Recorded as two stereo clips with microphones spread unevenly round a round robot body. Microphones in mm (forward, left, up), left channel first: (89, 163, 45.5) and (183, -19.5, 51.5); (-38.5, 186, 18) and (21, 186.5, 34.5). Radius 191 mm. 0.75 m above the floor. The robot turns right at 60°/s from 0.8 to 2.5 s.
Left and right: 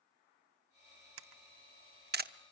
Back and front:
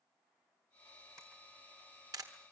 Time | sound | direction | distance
1.2 | a camera shutter | 80° right | 0.8 m